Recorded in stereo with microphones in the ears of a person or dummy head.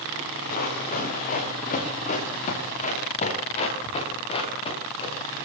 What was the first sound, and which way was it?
Running footsteps, 50° left (ahead or behind).